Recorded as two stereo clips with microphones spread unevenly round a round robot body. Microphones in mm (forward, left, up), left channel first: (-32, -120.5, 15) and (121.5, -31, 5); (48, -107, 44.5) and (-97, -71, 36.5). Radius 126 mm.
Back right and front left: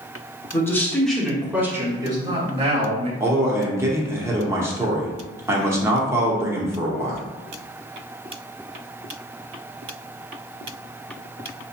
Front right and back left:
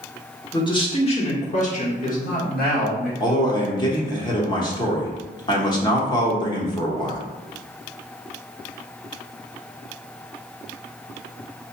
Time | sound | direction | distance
0.5 | a man speaking | 75° right | 1.4 m
3.2 | a man speaking | 15° right | 0.8 m